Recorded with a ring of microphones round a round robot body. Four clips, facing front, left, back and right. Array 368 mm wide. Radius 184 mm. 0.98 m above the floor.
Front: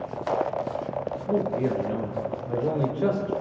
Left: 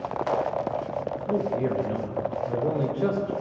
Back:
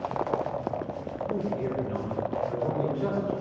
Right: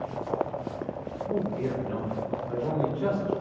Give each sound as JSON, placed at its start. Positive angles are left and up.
{"t": 1.3, "sound": "a man speaking", "azimuth_deg": 45, "distance_m": 2.5}